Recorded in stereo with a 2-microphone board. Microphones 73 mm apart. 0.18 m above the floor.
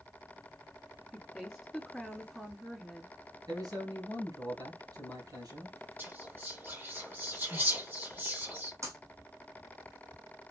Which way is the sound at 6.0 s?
30° right (ahead or behind).